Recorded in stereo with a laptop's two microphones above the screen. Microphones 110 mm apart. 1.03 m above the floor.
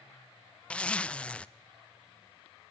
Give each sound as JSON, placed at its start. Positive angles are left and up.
{"t": 0.7, "sound": "a zipper", "side_deg": 10, "distance_m": 0.5}